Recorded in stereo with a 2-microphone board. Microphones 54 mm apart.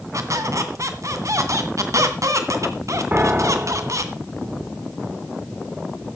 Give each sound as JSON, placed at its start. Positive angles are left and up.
{"t": 0.1, "sound": "a squeak", "side_deg": -70, "distance_m": 2.0}
{"t": 3.1, "sound": "a piano", "side_deg": -35, "distance_m": 0.8}